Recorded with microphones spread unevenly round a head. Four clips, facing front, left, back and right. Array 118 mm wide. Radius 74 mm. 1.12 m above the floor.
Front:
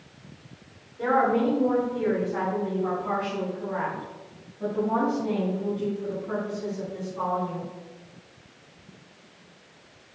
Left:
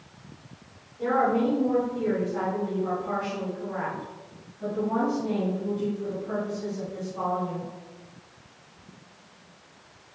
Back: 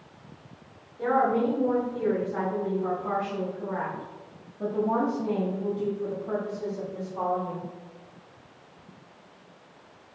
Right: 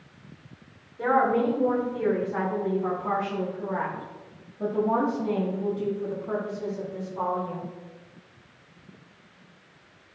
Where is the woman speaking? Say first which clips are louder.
Right 1 dB, front 1 dB; 55° right, 3.5 m; by 7.6 s 175° right, 3.5 m.